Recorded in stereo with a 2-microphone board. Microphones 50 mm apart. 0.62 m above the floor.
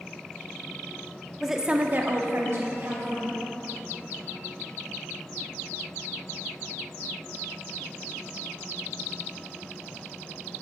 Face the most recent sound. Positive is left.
turn(degrees=-50)  # may be behind; listen again after turning